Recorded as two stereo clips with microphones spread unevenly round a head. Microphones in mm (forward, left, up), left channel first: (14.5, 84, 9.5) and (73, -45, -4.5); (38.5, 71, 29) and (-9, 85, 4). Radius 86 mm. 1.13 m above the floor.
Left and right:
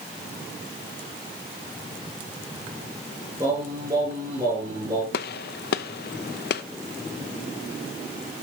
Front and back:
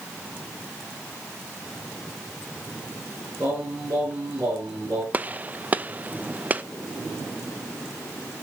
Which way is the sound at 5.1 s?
110° left.